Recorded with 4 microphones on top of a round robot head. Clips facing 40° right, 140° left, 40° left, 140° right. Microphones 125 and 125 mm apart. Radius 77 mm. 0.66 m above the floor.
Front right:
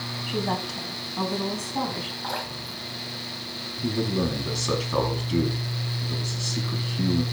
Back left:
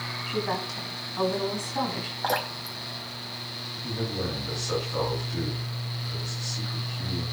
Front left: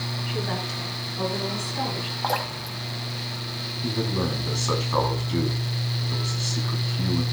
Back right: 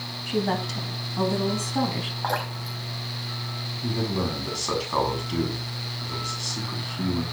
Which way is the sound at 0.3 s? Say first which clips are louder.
Front right 2 dB, back right 6 dB; 105° right.